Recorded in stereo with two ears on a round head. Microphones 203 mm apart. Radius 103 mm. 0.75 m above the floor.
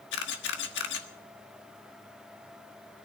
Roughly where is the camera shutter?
Left.